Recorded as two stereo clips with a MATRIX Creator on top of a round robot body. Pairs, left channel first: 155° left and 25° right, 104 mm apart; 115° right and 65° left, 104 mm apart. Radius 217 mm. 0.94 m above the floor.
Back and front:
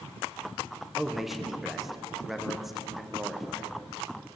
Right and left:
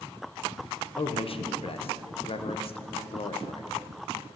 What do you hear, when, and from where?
1.0 s a man speaking: 110° right, 0.8 m